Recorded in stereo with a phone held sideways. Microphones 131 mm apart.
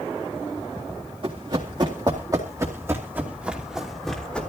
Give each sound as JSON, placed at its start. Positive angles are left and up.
{"t": 1.2, "sound": "running footsteps", "side_deg": -45, "distance_m": 4.0}